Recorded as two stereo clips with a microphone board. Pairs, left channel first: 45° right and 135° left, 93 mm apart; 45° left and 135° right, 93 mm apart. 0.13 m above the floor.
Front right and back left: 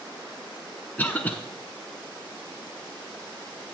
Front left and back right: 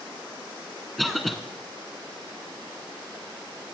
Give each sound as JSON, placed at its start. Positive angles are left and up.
{"t": 1.0, "sound": "a cough", "azimuth_deg": -45, "distance_m": 1.0}